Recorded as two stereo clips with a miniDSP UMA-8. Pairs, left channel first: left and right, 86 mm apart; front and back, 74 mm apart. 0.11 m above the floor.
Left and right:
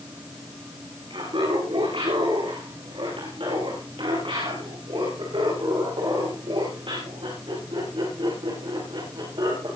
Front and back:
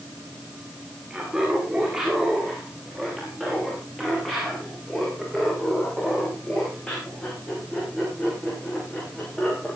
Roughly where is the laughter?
Right.